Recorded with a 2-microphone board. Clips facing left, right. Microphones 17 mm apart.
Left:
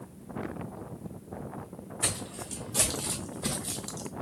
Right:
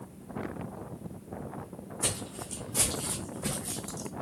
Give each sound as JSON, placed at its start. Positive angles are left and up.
{"t": 2.0, "sound": "footsteps", "side_deg": 50, "distance_m": 2.0}